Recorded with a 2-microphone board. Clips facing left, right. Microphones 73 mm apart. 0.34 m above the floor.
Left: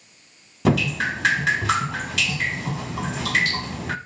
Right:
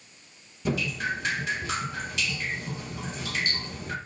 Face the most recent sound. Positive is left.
turn(degrees=90)